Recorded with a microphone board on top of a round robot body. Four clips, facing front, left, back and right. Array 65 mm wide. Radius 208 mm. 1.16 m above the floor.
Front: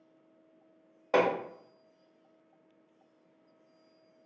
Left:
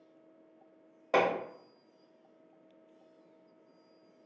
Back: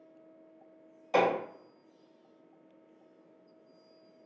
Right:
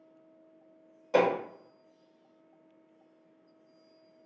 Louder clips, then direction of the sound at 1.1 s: Right 3 dB, even; 40° left.